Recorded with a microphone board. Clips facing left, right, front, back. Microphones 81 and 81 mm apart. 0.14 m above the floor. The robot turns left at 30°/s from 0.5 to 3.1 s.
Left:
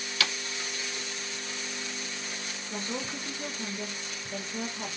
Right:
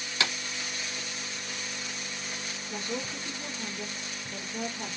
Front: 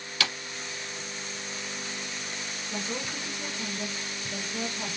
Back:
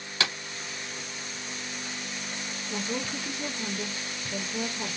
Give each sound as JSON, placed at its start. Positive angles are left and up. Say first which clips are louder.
{"t": 0.2, "sound": "a clap", "louder": "right 1 dB, back 1 dB", "azimuth_deg": -140, "distance_m": 1.5}
{"t": 2.7, "sound": "a woman speaking", "louder": "even, back 3 dB", "azimuth_deg": 95, "distance_m": 1.4}